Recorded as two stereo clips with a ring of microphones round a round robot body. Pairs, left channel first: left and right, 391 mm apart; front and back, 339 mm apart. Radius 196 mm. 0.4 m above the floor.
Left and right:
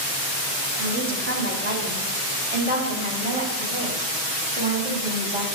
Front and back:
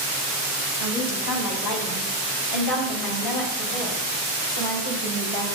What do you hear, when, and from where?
0.8 s a woman speaking: 35° right, 3 m; by 5.5 s 15° right, 5 m